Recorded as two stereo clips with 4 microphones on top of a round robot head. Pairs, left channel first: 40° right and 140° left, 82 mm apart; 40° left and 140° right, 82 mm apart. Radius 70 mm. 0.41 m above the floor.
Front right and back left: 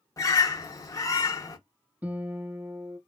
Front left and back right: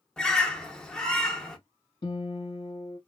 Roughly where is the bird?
Ahead right.